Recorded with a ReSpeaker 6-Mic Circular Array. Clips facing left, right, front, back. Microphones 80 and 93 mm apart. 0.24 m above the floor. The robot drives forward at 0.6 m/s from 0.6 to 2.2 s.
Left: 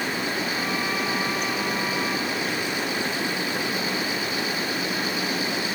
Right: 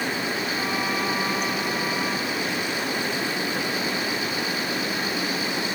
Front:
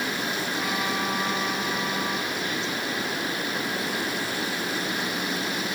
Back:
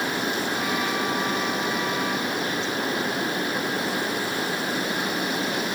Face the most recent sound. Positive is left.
No sound to turn to.